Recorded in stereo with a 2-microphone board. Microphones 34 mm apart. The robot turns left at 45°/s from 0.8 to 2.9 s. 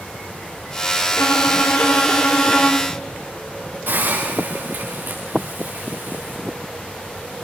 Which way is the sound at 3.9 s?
70° right (ahead or behind).